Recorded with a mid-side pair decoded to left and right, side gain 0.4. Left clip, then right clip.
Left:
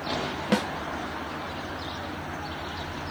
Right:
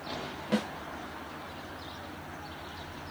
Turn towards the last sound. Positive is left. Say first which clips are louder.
# left 5 dB
turn(degrees=70)